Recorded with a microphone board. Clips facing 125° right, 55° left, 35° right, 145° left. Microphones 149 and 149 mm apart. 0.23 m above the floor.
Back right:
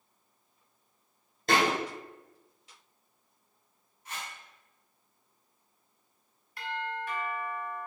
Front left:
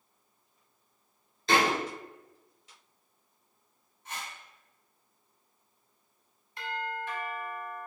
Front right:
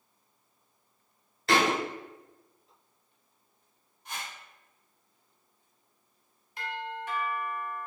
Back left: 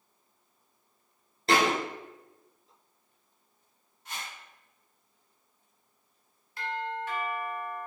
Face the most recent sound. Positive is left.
turn(degrees=20)